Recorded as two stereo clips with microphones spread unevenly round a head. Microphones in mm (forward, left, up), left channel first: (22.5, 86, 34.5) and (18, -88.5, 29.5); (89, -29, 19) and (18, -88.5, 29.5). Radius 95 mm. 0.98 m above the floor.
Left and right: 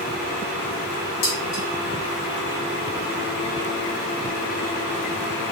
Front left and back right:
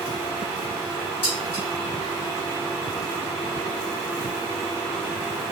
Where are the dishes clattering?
90° left, 1.5 m.